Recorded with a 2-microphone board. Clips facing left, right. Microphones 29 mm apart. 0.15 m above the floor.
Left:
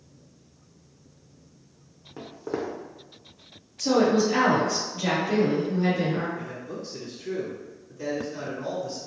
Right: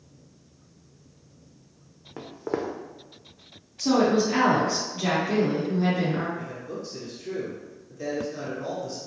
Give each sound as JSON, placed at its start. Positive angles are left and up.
{"t": 2.2, "sound": "footsteps", "side_deg": -25, "distance_m": 0.5}
{"t": 3.8, "sound": "a woman speaking", "side_deg": -20, "distance_m": 1.4}
{"t": 6.4, "sound": "a man speaking", "side_deg": 5, "distance_m": 1.0}